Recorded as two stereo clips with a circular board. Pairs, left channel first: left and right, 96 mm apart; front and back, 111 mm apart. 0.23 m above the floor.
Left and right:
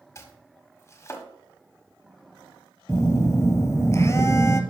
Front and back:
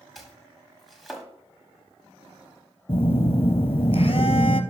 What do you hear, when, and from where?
0.1 s chopping: 90° left, 1.3 m
2.9 s a phone buzzing: 30° left, 0.8 m